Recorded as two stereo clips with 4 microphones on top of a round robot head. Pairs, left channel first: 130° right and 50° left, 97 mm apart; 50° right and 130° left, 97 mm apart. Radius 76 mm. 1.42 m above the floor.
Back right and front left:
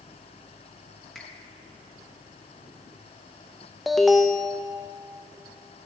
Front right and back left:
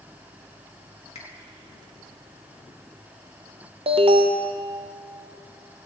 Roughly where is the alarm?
Behind left.